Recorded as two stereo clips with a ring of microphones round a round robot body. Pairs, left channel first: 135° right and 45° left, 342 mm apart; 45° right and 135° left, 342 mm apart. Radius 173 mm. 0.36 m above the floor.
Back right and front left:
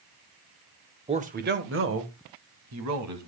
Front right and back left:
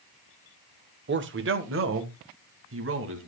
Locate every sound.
1.1 s a man speaking: 105° left, 1.0 m; by 3.3 s 85° left, 2.5 m